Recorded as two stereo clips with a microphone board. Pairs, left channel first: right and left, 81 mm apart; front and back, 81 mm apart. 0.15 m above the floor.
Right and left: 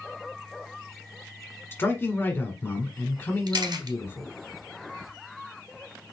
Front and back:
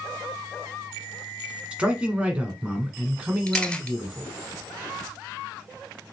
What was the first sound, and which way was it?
A man speaking, 120° right.